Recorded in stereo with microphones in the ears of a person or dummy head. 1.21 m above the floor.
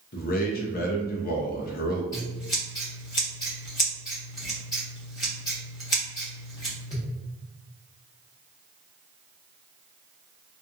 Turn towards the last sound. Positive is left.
turn(degrees=15)  # may be behind; listen again after turning